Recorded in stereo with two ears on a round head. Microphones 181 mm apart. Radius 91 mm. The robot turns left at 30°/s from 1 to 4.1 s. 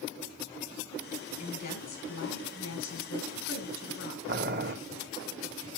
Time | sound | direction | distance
1.4 | a woman speaking | 140° left | 5.5 m
4.3 | boiling | 50° right (ahead or behind) | 0.9 m